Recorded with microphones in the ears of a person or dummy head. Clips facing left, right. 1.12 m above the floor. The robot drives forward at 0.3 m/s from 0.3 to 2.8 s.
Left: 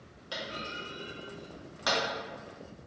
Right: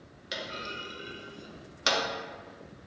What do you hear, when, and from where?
0.3 s a clunk: 25° right (ahead or behind), 0.8 m; by 2.0 s 35° right (ahead or behind), 0.6 m